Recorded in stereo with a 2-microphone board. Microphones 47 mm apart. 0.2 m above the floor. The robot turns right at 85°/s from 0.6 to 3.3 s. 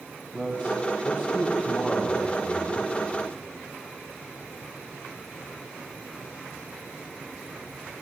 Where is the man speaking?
30° right (ahead or behind), 1.2 m; by 2.9 s 30° left (ahead or behind), 1.2 m.